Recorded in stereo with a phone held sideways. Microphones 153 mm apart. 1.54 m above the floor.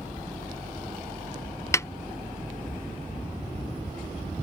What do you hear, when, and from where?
1.7 s a snare drum: 20° left (ahead or behind)